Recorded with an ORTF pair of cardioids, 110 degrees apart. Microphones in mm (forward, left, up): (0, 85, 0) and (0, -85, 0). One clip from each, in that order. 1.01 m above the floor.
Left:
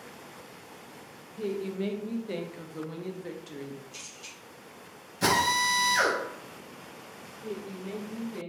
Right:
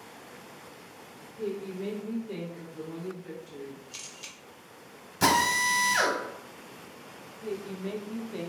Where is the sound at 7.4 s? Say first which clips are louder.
Right 3 dB; 40° right, 0.6 m.